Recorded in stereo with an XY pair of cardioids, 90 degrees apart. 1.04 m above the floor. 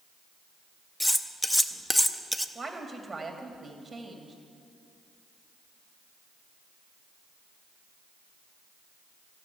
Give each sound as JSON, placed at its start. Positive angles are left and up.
{"t": 1.0, "sound": "cutlery clinking", "azimuth_deg": 10, "distance_m": 0.6}
{"t": 2.5, "sound": "a woman speaking", "azimuth_deg": -20, "distance_m": 2.5}